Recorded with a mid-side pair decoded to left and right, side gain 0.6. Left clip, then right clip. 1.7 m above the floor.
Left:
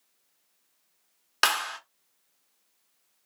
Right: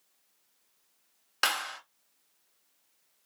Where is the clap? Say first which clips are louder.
Left 4 dB; 35° left, 1.3 m.